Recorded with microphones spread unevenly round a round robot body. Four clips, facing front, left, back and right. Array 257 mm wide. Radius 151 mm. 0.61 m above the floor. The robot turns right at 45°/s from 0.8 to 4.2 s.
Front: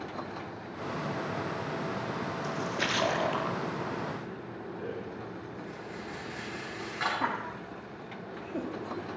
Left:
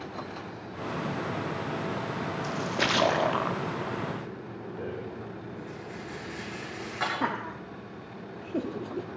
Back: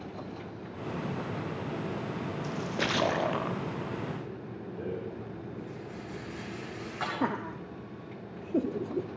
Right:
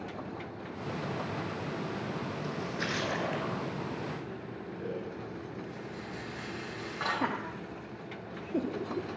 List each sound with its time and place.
2.4 s a splash: 100° left, 1.1 m; by 3.6 s 150° left, 1.1 m
4.8 s a rattle: 145° left, 8.5 m
7.2 s laughter: straight behind, 1.0 m